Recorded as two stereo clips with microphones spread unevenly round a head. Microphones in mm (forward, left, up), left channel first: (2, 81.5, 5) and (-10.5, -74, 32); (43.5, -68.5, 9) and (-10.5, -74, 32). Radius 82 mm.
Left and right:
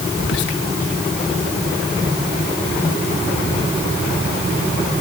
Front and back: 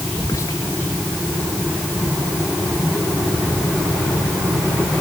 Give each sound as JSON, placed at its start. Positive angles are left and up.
{"t": 0.2, "sound": "whispering", "azimuth_deg": 70}